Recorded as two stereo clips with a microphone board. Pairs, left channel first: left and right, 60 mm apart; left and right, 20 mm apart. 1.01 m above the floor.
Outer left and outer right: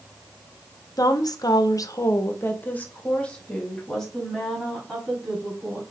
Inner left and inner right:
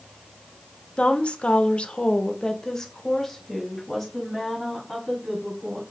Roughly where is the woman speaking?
Left.